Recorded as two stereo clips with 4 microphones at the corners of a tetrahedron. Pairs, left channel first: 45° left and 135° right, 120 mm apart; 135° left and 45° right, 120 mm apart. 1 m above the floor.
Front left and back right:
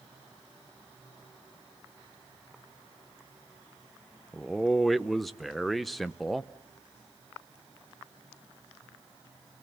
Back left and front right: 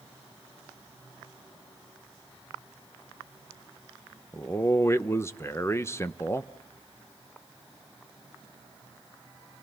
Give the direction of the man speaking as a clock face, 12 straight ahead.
8 o'clock.